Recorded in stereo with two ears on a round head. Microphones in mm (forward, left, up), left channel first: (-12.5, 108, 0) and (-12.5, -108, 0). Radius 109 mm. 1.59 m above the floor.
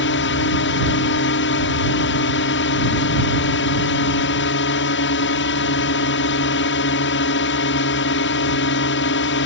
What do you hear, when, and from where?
0.0 s a drone: 50° left (ahead or behind)